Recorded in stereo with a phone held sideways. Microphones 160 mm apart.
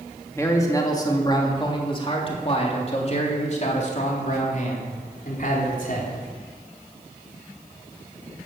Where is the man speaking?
20° left (ahead or behind), 3 m; by 6.1 s 60° left (ahead or behind), 4.5 m.